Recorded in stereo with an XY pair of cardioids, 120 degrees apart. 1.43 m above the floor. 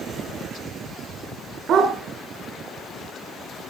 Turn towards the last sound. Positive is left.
turn(degrees=-60)